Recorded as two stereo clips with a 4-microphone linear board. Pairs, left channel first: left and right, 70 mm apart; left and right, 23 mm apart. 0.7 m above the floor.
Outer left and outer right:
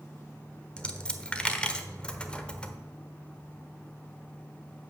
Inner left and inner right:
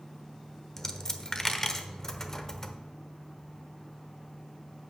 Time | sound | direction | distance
0.8 | a dropped coin | 15° left (ahead or behind) | 0.9 m